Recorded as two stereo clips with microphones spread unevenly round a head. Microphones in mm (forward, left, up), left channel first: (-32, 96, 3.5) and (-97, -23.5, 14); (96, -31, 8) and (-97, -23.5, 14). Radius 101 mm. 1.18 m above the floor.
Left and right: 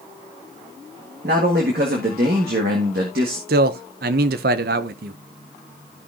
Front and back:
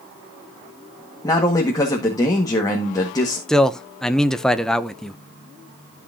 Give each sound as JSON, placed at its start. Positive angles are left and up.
{"t": 1.2, "sound": "a man speaking", "azimuth_deg": -75, "distance_m": 1.7}
{"t": 3.5, "sound": "a man speaking", "azimuth_deg": -90, "distance_m": 0.5}